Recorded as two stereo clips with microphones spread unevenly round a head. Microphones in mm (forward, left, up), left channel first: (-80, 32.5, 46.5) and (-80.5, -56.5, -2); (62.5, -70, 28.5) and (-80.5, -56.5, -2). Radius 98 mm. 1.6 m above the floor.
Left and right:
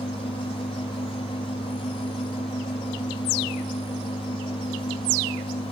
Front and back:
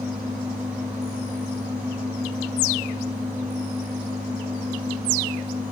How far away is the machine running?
About 2 m.